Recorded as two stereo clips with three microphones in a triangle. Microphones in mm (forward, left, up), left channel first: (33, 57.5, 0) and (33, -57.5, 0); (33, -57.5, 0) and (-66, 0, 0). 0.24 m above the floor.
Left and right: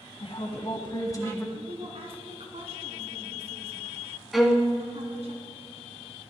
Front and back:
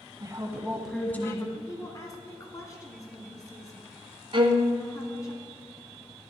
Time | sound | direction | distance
0.2 | a woman speaking | 105° left | 1.7 m
1.6 | a woman speaking | 85° right | 1.8 m
4.3 | a violin | straight behind | 1.0 m